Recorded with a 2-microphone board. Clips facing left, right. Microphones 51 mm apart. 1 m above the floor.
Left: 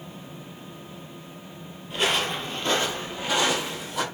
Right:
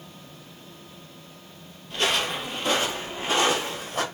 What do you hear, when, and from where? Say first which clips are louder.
1.9 s footsteps: even; 10° left (ahead or behind), 1.2 m; by 4.0 s 40° right (ahead or behind), 2.0 m